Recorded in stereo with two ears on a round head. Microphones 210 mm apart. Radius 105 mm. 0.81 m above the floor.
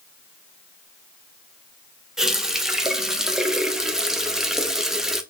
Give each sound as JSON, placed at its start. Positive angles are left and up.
{"t": 2.2, "sound": "a running tap", "side_deg": 0, "distance_m": 0.5}